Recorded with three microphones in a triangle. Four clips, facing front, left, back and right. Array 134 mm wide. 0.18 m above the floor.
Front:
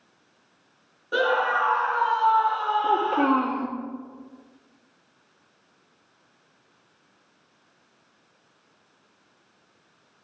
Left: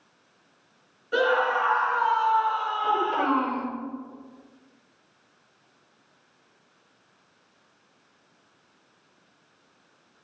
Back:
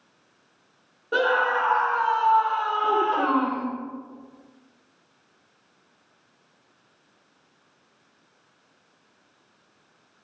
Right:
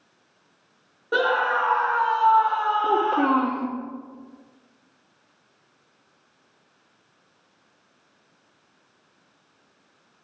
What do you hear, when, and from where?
1.1 s a scream: 110° right, 5 m; by 3.5 s 90° right, 3.5 m
2.8 s a child speaking: 75° right, 4 m